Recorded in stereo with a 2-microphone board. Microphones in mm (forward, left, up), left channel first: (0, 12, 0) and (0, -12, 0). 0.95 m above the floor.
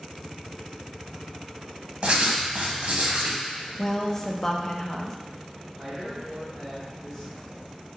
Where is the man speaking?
20° right (ahead or behind), 1.7 m.